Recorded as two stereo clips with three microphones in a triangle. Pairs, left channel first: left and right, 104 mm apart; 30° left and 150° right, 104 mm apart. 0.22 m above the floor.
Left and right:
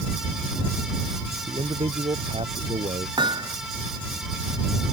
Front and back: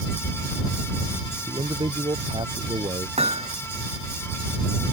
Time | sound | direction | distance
1.5 | a man speaking | 115° right | ?
3.2 | hammering | 135° right | ?